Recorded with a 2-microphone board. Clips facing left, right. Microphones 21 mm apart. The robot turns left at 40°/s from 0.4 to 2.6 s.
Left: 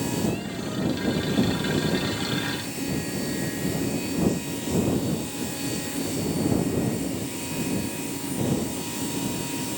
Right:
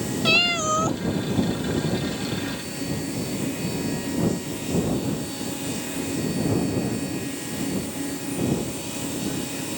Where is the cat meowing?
70° right (ahead or behind); by 1.0 s 75° right (ahead or behind).